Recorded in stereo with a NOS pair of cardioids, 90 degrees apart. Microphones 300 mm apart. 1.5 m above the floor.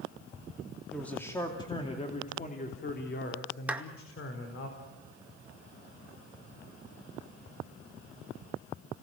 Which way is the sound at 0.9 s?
Straight ahead.